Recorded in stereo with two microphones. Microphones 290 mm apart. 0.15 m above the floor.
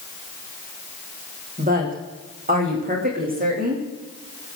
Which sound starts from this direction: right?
A woman speaking, at 1.6 s.